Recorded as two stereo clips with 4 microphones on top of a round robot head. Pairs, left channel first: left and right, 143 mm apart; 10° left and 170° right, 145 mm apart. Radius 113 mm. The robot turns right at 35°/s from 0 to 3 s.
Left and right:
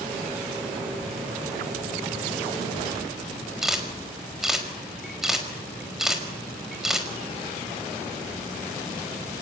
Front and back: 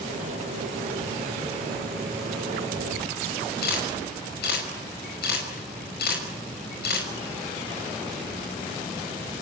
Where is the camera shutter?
5° right, 5.5 m.